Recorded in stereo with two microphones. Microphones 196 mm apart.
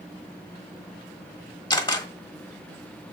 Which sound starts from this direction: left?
A camera shutter, at 1.7 s.